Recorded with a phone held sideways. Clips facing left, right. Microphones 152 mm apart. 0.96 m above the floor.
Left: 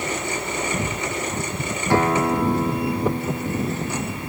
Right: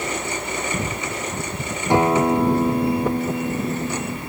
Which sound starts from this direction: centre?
A guitar, at 1.9 s.